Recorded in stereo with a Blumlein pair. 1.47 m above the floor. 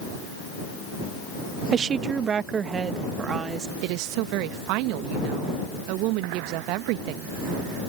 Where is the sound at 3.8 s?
40° right.